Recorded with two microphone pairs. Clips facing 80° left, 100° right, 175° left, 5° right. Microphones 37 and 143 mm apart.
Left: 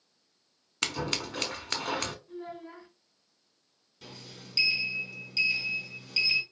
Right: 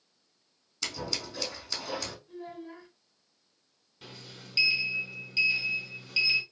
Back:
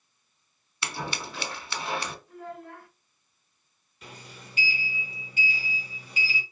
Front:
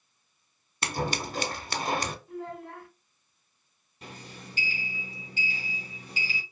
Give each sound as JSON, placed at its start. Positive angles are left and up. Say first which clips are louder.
{"t": 0.8, "sound": "scissors", "louder": "left 4 dB, front 4 dB", "azimuth_deg": 45, "distance_m": 0.5}
{"t": 2.3, "sound": "a child speaking", "louder": "left 1 dB, front 3 dB", "azimuth_deg": -5, "distance_m": 0.8}
{"t": 4.0, "sound": "a sliding door", "louder": "even, front 2 dB", "azimuth_deg": -45, "distance_m": 1.7}